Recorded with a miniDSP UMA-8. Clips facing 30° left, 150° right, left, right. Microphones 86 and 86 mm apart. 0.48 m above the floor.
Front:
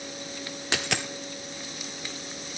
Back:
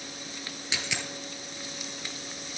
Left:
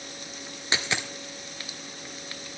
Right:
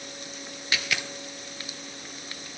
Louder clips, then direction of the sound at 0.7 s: Front 5 dB, left 1 dB; 35° left.